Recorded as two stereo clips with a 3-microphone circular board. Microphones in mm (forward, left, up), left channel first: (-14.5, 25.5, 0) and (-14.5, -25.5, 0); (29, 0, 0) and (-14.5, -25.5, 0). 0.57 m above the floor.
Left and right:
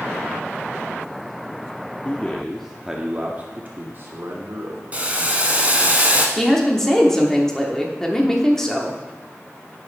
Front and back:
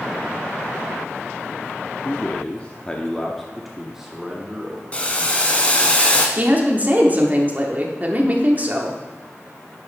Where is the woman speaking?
170° left, 1.1 m.